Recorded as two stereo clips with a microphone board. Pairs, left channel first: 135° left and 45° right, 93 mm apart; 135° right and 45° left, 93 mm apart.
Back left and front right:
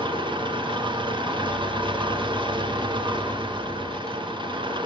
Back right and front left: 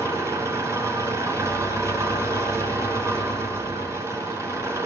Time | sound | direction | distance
0.0 | an engine running | 15° right | 4.5 m